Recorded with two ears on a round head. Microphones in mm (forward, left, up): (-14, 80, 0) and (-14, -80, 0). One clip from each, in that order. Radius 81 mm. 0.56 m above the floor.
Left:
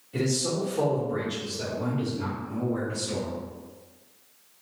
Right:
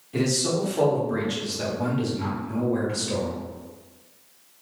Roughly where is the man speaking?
Centre.